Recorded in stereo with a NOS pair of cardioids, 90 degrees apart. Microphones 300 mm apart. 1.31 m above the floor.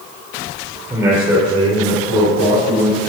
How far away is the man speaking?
About 4 m.